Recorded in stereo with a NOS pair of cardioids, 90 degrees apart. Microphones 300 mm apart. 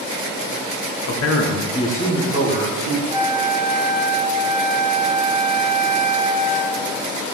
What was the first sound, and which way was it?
A man speaking, 65° left.